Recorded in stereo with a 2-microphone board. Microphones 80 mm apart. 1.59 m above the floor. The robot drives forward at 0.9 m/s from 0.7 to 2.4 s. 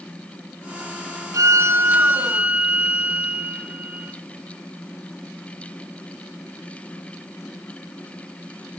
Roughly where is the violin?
Right.